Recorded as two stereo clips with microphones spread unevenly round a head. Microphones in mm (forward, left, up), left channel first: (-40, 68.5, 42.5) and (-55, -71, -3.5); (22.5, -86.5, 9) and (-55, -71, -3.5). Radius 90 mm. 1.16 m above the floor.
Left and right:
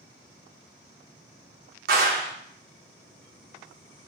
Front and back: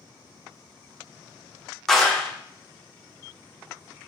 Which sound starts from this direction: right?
A clap, at 1.9 s.